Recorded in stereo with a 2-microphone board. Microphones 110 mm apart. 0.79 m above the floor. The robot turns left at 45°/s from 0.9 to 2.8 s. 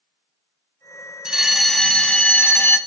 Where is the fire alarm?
5° right (ahead or behind), 1.4 m; by 2.8 s 20° left (ahead or behind), 1.4 m.